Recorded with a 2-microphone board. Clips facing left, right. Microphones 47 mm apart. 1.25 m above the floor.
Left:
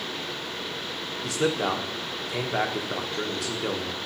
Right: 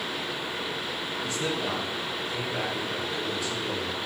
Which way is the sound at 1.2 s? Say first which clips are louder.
Left 6 dB; 65° left (ahead or behind).